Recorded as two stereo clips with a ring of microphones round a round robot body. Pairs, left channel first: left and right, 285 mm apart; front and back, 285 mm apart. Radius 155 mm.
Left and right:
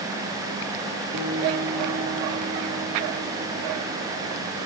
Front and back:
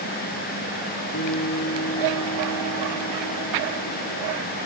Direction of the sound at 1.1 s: 60° right.